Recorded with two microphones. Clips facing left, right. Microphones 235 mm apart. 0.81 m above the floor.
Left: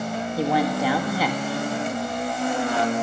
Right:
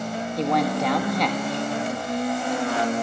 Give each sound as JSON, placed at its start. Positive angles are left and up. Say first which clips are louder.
{"t": 0.4, "sound": "a man speaking", "louder": "even", "side_deg": 5, "distance_m": 1.5}